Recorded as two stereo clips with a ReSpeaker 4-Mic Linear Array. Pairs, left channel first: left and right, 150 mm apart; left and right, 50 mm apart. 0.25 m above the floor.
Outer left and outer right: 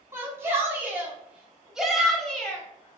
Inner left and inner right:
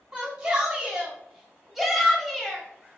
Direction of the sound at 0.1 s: 20° right (ahead or behind).